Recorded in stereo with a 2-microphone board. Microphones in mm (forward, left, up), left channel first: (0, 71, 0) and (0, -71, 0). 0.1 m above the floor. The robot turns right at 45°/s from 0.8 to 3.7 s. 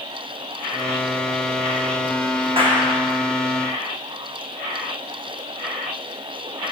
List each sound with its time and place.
2.6 s a clap: 40° right (ahead or behind), 6.5 m; by 3.0 s 25° right (ahead or behind), 6.5 m